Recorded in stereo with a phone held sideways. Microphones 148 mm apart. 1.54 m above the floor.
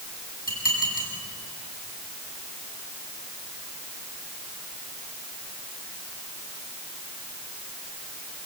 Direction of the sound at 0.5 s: 85° left.